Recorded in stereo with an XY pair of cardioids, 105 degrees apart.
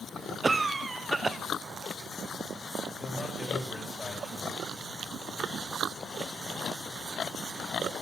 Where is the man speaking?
20° left, 3 m.